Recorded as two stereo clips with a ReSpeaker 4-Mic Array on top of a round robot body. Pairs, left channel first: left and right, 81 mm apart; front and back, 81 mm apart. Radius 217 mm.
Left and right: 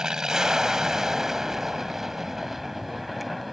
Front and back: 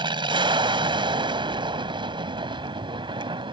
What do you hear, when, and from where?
0.0 s an aircraft: 170° right; by 3.5 s straight behind